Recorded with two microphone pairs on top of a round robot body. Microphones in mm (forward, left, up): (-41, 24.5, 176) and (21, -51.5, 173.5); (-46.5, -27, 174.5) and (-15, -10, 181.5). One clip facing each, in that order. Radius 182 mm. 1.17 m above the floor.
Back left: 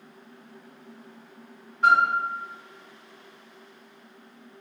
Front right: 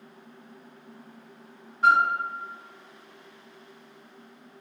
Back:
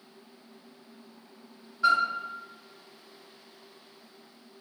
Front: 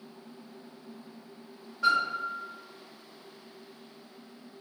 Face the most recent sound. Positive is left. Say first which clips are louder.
# back left 1 dB, back 2 dB
turn(degrees=35)